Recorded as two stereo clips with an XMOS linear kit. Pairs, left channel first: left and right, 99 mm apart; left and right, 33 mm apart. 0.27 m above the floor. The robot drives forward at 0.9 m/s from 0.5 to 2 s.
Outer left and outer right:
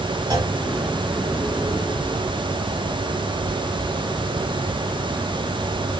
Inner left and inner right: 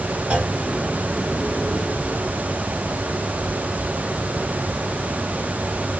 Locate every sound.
0.3 s a clunk: 40° right (ahead or behind), 1.9 m